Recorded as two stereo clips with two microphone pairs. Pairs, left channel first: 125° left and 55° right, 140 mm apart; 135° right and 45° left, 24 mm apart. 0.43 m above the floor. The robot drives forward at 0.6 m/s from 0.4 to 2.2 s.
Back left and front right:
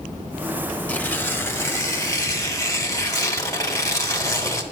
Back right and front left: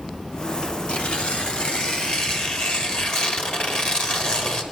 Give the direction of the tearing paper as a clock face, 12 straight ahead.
5 o'clock.